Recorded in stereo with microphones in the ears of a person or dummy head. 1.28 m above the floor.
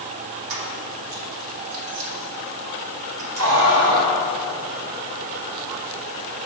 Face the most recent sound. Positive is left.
turn(degrees=-80)